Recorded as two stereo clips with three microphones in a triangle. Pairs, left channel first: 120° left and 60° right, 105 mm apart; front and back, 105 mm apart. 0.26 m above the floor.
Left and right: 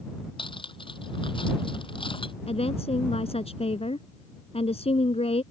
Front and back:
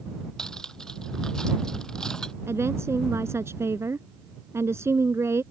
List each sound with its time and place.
0.4 s cutlery clinking: 85° left
2.5 s a woman speaking: 115° left